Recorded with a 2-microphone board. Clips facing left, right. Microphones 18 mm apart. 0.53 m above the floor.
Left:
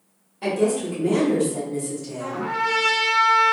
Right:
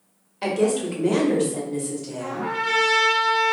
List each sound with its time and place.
0.4 s a woman speaking: 35° right (ahead or behind), 0.8 m; by 2.5 s centre (ahead or behind), 1.1 m
2.2 s a trumpet: 30° left (ahead or behind), 1.3 m